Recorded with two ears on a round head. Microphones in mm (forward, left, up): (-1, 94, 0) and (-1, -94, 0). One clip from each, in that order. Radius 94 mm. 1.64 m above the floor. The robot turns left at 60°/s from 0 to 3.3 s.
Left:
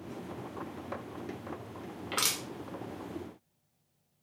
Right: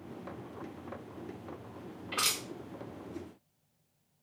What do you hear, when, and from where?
2.1 s crushing: 65° left (ahead or behind), 1.1 m; by 2.4 s 50° left (ahead or behind), 1.1 m